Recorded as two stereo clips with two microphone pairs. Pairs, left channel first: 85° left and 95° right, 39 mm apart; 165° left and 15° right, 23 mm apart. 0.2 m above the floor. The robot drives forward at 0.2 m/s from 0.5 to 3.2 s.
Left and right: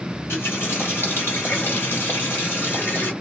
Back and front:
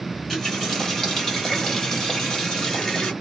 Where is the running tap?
90° left, 2 m; by 3.1 s 105° left, 2 m.